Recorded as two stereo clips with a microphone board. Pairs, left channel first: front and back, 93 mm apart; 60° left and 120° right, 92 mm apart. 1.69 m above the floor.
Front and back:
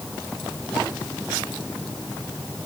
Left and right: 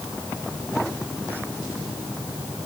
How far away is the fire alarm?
I don't hear a fire alarm.